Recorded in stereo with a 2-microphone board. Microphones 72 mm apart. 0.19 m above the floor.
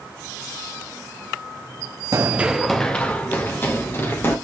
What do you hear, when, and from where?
2.1 s running footsteps: 45° right (ahead or behind), 0.7 m; by 4.3 s 35° left (ahead or behind), 3 m